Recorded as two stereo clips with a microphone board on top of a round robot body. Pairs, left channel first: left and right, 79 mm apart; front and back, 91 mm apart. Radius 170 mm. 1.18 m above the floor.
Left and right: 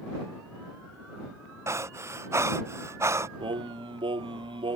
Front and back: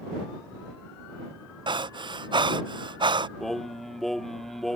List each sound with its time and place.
1.7 s breathing: 145° right
3.4 s singing: 90° right